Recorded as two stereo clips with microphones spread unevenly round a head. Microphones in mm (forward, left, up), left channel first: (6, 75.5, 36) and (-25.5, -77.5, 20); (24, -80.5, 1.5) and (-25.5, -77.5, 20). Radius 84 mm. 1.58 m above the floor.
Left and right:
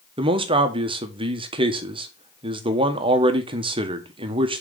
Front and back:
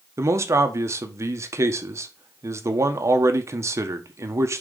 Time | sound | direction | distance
0.2 | a man speaking | 165° right | 1.1 m